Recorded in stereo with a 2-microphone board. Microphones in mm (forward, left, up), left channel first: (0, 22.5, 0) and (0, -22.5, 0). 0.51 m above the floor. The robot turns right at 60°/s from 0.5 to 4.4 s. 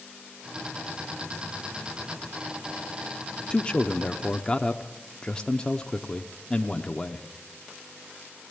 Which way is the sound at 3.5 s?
20° left (ahead or behind).